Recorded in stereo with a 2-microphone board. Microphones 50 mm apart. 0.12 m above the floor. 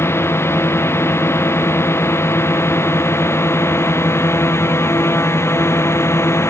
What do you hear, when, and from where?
0.0 s a drone: 55° left (ahead or behind); by 6.5 s 60° left (ahead or behind)